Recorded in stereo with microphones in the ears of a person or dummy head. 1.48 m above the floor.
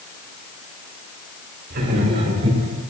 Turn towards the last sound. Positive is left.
turn(degrees=-40)  # may be behind; listen again after turning